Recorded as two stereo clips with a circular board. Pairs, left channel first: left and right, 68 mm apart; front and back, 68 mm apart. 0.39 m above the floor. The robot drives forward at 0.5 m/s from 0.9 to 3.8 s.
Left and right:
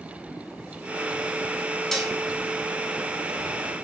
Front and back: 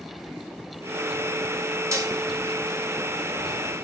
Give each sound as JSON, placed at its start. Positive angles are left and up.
{"t": 1.9, "sound": "dishes clattering", "azimuth_deg": 175, "distance_m": 0.8}